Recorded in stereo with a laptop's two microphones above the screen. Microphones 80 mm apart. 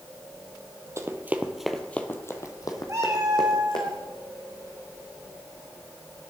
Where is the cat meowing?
40° right (ahead or behind), 1.3 m.